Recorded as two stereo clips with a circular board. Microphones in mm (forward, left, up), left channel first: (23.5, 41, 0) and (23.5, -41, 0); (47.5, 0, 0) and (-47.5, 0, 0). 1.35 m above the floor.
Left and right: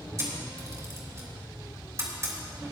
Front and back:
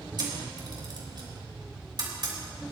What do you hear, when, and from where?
0.2 s a camera shutter: 145° right, 3.5 m